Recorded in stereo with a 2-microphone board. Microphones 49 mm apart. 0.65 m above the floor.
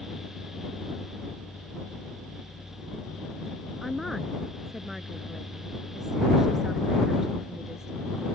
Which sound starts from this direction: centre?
A woman speaking, at 3.8 s.